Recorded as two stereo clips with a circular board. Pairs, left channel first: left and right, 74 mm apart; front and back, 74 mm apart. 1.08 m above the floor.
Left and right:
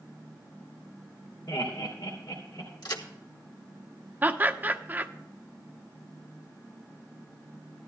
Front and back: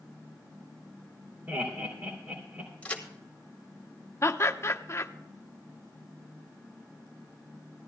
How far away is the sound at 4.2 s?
About 0.8 m.